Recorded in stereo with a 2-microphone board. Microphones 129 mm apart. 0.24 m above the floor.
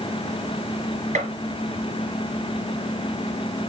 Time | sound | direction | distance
1.1 | a gunshot | 75° right (ahead or behind) | 3.5 m